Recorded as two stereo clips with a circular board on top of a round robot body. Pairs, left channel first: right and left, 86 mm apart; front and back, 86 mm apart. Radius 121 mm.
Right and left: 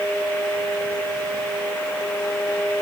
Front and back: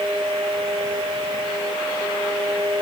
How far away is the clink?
I don't hear a clink.